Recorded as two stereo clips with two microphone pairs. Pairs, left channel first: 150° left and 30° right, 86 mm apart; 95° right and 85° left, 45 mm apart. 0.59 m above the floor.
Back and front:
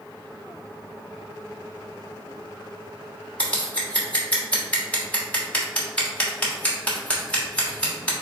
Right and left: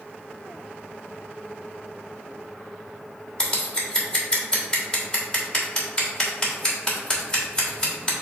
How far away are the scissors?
About 1.5 m.